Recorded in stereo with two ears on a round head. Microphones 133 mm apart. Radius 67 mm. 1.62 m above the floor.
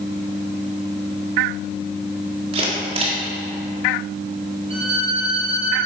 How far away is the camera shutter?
About 3.5 m.